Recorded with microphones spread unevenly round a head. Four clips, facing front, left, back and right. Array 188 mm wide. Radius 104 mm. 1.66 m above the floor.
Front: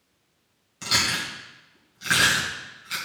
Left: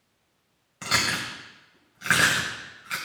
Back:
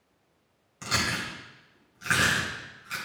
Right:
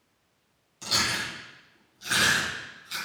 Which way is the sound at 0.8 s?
80° left.